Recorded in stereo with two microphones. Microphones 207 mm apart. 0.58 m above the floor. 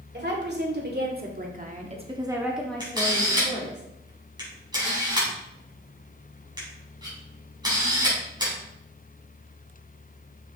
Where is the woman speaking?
55° right (ahead or behind), 2 m; by 3.8 s 30° left (ahead or behind), 1.6 m.